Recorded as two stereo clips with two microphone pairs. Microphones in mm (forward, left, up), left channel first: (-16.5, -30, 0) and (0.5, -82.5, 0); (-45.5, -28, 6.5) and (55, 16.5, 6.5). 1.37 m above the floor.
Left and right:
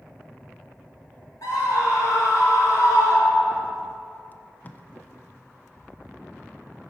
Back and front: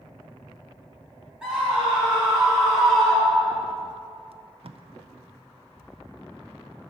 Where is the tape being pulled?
45° left, 0.5 m.